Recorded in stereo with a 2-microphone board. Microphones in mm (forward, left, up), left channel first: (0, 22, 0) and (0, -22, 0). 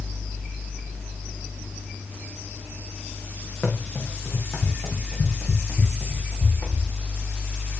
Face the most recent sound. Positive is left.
turn(degrees=60)  # may be behind; listen again after turning